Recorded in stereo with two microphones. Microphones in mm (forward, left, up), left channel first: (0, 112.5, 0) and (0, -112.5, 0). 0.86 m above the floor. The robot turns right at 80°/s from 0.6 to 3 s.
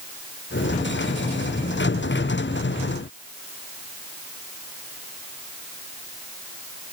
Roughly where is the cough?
I don't hear a cough.